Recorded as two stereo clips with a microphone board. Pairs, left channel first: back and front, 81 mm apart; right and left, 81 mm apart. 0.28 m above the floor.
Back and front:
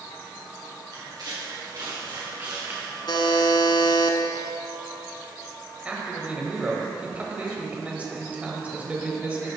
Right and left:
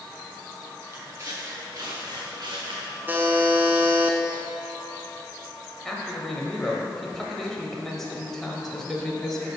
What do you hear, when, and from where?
0.9 s footsteps: 35° left, 2.5 m; by 3.0 s 75° left, 1.4 m
3.1 s a buzzer: 155° left, 0.6 m
5.8 s a man speaking: 10° right, 0.9 m